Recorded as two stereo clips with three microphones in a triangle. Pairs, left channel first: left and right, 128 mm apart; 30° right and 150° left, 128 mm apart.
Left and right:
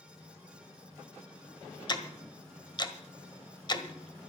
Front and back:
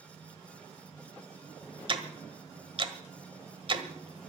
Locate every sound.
1.9 s ticking: 130° left, 1.3 m